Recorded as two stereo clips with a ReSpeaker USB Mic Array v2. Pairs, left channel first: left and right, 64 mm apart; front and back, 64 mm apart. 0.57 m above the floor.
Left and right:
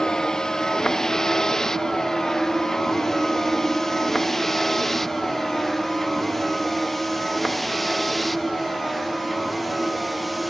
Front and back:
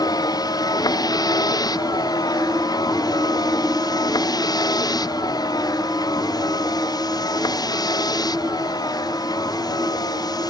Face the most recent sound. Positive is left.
turn(degrees=0)